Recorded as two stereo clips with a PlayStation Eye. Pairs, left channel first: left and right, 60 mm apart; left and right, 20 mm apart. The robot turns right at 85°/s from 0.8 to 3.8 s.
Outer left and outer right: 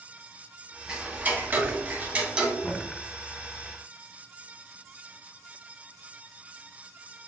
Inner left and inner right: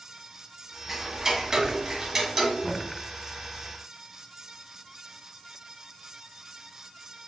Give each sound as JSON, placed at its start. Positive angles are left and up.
{"t": 0.9, "sound": "ticking", "azimuth_deg": -150, "distance_m": 0.9}
{"t": 2.6, "sound": "knocking", "side_deg": 20, "distance_m": 0.7}